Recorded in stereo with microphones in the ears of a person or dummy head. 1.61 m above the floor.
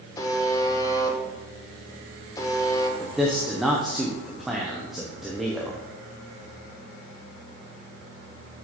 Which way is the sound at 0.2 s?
25° left (ahead or behind).